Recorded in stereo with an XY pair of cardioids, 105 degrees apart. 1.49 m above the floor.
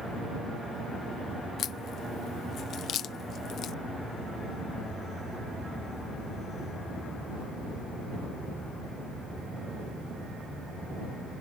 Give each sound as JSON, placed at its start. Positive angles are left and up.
{"t": 1.6, "sound": "a crack", "azimuth_deg": 65}